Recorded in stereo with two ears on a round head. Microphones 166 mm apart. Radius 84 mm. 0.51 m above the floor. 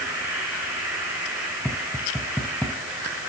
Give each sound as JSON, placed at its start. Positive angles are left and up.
{"t": 0.0, "sound": "an insect", "side_deg": -10, "distance_m": 6.0}
{"t": 1.6, "sound": "tapping", "side_deg": 0, "distance_m": 2.0}